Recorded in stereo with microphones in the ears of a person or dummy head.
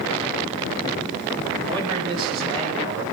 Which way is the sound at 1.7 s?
25° right (ahead or behind).